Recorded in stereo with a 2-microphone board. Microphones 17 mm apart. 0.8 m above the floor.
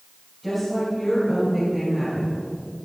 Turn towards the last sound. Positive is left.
turn(degrees=30)  # may be behind; listen again after turning